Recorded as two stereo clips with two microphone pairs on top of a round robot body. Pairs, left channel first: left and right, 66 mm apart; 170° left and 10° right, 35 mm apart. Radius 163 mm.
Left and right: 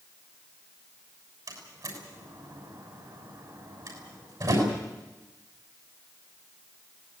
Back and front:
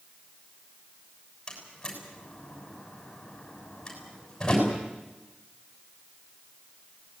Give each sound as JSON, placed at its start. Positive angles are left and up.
{"t": 1.5, "sound": "a door slam", "azimuth_deg": -120, "distance_m": 6.5}